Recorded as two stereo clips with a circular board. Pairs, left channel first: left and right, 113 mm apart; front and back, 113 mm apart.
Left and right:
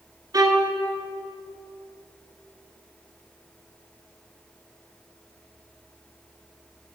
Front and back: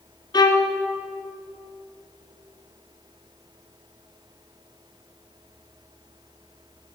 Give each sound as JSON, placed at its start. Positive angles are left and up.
{"t": 0.3, "sound": "a violin", "azimuth_deg": -40, "distance_m": 1.2}